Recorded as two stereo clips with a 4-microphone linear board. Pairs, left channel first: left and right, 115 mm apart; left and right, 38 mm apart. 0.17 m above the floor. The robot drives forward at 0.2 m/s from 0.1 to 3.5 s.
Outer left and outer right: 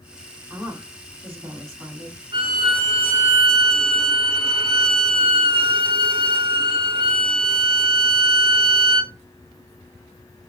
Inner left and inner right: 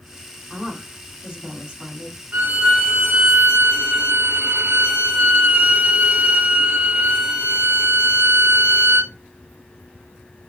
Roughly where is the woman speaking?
Centre.